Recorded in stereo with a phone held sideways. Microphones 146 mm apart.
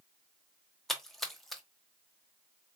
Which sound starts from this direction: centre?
A splash, at 0.9 s.